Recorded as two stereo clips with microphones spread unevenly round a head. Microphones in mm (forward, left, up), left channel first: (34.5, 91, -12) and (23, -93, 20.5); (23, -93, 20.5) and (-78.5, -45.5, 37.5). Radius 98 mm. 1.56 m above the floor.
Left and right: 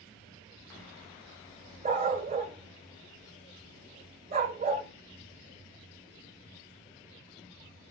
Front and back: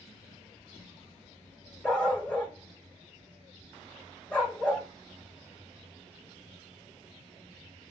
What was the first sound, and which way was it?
A dog barking, 110° right.